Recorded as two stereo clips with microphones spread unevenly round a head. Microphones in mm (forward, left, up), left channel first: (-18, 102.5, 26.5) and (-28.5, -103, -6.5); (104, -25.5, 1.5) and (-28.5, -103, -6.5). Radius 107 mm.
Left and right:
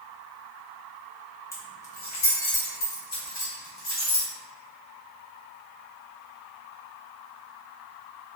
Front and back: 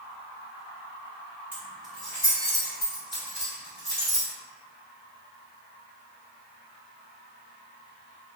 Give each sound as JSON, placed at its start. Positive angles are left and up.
{"t": 1.5, "sound": "keys jangling", "azimuth_deg": 135, "distance_m": 0.6}